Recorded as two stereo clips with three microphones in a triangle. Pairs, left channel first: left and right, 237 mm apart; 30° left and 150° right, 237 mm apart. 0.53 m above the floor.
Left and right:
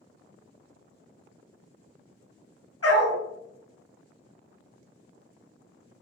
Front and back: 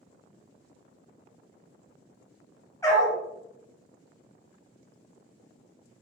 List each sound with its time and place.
2.8 s a dog barking: 105° left, 0.9 m